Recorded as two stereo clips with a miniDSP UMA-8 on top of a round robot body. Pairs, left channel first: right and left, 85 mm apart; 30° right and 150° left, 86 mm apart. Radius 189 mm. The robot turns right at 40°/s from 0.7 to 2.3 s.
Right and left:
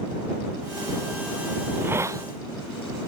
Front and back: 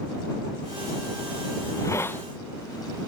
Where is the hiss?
15° left; by 2.2 s 40° left.